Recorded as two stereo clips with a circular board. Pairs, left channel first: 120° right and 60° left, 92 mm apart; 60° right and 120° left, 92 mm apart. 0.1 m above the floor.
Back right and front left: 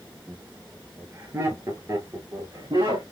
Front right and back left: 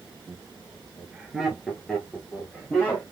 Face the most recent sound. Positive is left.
turn(degrees=15)